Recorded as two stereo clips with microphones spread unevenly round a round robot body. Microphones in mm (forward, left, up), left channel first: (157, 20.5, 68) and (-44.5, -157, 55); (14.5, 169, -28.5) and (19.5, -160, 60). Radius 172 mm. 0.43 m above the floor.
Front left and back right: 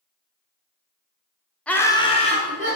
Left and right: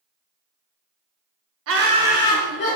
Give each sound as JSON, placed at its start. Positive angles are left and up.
{"t": 1.7, "sound": "laughter", "azimuth_deg": -45, "distance_m": 0.8}